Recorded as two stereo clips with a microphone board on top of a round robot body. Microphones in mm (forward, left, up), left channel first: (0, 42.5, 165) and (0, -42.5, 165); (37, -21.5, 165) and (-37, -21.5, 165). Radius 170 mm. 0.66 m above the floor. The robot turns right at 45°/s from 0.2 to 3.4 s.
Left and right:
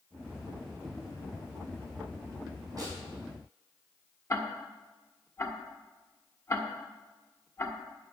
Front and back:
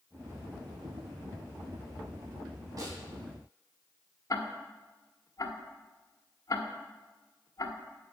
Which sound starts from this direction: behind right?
A snare drum, at 2.8 s.